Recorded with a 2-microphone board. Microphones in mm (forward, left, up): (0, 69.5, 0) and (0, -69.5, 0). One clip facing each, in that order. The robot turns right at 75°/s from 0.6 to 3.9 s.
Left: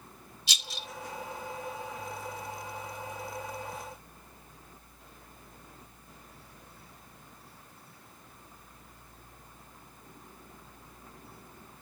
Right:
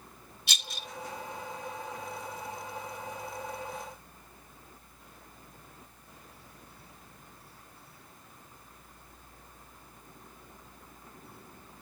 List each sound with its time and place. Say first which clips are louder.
0.5 s a rattle: even; 60° right (ahead or behind), 1.3 m; by 0.9 s 45° right (ahead or behind), 1.3 m